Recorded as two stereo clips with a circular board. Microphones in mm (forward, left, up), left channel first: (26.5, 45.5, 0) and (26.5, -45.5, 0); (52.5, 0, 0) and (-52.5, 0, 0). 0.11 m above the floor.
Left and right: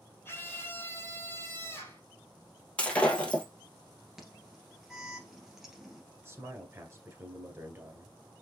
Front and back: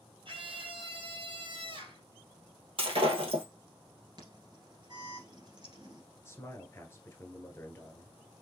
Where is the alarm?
175° right, 1.7 m.